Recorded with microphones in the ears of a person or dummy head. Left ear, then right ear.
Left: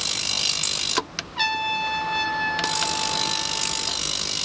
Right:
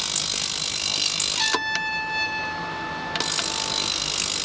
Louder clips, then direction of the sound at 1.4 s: Left 5 dB; 65° left (ahead or behind).